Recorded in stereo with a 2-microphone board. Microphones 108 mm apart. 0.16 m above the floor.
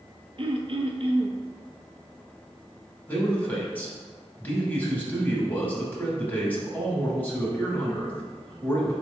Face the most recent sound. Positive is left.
turn(degrees=15)  # may be behind; listen again after turning